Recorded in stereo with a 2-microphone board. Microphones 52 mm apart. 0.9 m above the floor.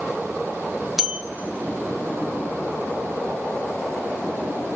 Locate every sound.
1.0 s a bell: 5° right (ahead or behind), 0.9 m